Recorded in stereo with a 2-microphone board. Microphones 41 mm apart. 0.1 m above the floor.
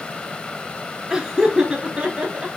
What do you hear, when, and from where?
1.1 s laughter: 20° right (ahead or behind), 1.1 m; by 2.5 s 35° right (ahead or behind), 1.4 m